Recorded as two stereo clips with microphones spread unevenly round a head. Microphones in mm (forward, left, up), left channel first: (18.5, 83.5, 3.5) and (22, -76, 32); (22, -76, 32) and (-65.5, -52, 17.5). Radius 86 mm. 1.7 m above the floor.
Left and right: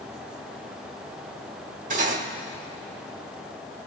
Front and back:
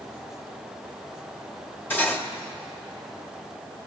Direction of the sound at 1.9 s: 75° right.